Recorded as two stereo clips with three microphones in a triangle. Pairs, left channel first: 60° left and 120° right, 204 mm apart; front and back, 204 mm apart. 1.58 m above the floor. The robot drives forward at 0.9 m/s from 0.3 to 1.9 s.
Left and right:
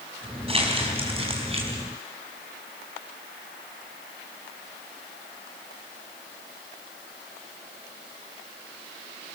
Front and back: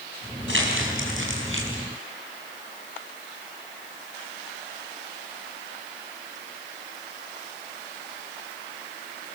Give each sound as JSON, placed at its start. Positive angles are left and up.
{"t": 0.5, "sound": "crumpling", "azimuth_deg": 180, "distance_m": 4.5}